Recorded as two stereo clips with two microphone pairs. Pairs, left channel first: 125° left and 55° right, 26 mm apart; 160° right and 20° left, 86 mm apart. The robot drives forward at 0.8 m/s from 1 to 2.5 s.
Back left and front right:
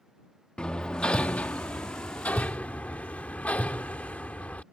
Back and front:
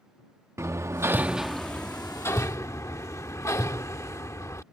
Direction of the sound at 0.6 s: 75° left.